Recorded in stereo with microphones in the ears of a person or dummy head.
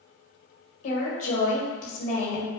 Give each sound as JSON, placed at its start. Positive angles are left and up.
{"t": 0.8, "sound": "a woman speaking", "side_deg": 40, "distance_m": 1.1}